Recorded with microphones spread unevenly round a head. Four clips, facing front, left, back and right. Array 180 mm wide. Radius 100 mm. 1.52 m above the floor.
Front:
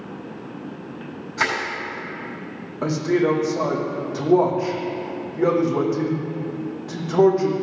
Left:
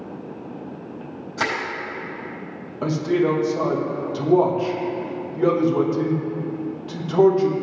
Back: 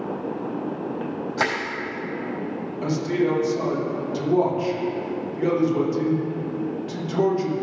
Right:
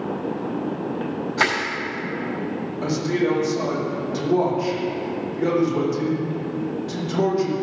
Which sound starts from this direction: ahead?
A man speaking, at 2.8 s.